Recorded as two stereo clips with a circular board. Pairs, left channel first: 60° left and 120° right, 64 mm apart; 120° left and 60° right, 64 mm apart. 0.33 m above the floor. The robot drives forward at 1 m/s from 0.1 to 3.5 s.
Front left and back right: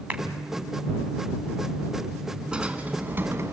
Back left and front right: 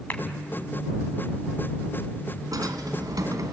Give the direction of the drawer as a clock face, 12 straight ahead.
2 o'clock.